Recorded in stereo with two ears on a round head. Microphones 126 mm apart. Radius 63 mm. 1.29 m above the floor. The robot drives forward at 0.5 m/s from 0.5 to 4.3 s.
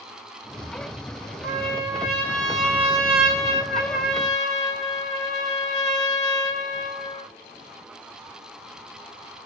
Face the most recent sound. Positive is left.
turn(degrees=5)  # may be behind; listen again after turning